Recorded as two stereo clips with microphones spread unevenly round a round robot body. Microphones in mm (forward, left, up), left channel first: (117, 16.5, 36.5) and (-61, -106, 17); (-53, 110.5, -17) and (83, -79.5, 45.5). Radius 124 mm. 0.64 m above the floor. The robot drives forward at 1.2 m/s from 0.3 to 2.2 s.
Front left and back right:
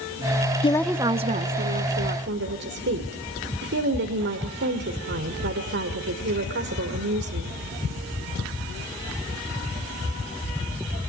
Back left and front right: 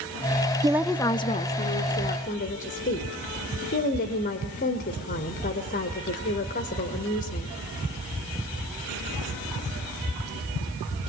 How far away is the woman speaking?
About 0.6 m.